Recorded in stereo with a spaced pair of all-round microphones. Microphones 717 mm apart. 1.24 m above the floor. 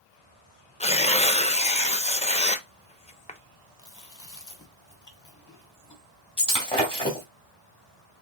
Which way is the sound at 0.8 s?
10° left (ahead or behind).